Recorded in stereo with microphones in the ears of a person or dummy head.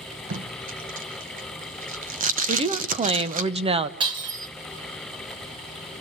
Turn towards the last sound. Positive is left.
turn(degrees=-30)  # may be behind; listen again after turning